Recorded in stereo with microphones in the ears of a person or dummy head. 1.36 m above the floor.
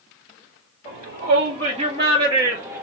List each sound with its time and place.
0.8 s a shout: 50° right (ahead or behind), 2.5 m; by 2.8 s 15° right (ahead or behind), 2.0 m